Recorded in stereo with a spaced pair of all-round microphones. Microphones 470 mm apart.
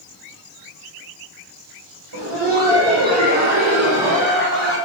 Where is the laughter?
55° right (ahead or behind), 1.4 m; by 4.8 s 75° right (ahead or behind), 3.5 m.